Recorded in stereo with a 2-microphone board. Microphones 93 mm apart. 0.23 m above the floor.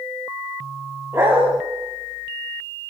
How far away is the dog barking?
About 9 m.